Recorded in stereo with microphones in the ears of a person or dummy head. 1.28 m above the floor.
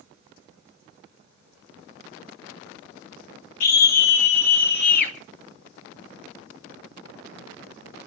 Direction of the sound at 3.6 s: 50° left (ahead or behind).